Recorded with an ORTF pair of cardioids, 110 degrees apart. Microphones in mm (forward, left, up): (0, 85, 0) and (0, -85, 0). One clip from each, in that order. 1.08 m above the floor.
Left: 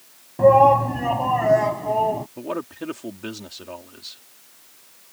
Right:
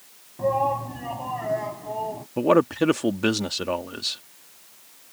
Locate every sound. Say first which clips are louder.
0.4 s a shout: left 10 dB; 60° left; by 2.3 s 50° left
2.4 s a man speaking: right 11 dB; 60° right